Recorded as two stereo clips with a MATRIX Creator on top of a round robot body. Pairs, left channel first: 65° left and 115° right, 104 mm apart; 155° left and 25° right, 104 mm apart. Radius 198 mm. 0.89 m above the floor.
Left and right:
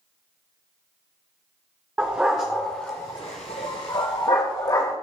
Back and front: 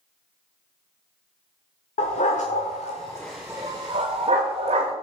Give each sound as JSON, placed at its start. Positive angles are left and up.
{"t": 2.0, "sound": "a dog barking", "azimuth_deg": 170, "distance_m": 0.9}